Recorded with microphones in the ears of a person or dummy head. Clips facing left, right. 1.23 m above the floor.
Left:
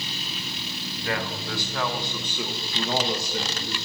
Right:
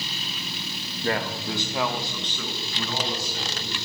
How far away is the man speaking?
About 1.4 m.